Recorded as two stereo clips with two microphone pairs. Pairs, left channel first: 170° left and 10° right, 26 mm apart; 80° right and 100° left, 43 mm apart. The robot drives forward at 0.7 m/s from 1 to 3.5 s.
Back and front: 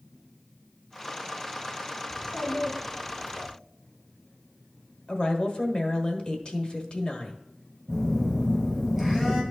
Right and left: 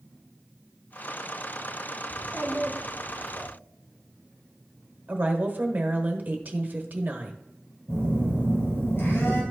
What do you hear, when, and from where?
2.1 s a child speaking: 140° left, 1.8 m; by 3.5 s 155° left, 2.5 m
5.1 s a woman speaking: 130° left, 1.2 m
7.9 s a phone buzzing: 110° right, 4 m